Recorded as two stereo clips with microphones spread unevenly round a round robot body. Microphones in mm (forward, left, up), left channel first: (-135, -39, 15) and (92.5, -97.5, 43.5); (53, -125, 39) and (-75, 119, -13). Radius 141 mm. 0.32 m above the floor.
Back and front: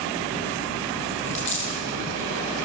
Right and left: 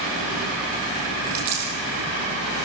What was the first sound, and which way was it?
A dropped coin, 115° left.